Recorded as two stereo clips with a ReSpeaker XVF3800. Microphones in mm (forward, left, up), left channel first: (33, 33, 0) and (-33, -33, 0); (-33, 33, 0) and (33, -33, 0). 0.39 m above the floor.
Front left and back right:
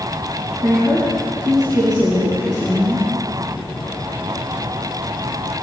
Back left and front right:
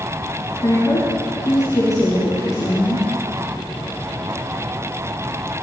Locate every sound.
0.6 s a woman speaking: straight behind, 5 m